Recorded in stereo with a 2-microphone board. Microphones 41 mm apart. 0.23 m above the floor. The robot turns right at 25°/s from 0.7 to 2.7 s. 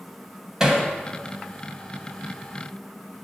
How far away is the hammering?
About 1.0 m.